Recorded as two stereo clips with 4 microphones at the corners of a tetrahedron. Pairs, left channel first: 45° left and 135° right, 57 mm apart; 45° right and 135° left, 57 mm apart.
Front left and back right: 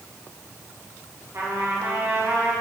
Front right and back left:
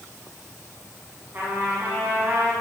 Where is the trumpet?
170° right, 4 m.